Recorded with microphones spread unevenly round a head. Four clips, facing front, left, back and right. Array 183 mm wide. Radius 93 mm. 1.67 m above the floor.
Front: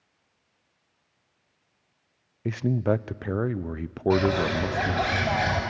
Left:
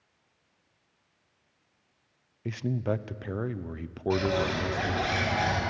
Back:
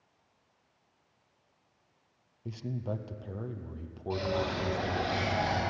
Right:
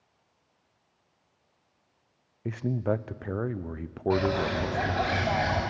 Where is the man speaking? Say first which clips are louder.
Right 2 dB, front 13 dB; 5° right, 0.6 m.